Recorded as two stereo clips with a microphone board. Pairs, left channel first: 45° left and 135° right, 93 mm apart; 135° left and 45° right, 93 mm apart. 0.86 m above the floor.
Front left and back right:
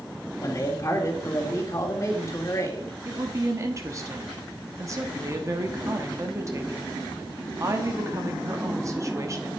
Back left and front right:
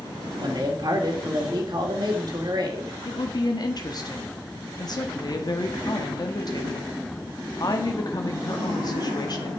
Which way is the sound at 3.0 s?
175° left.